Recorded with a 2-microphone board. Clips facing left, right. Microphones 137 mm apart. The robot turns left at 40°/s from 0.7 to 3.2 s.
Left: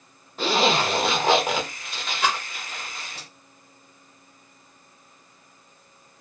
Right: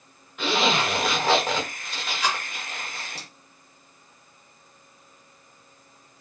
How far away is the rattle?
About 0.7 m.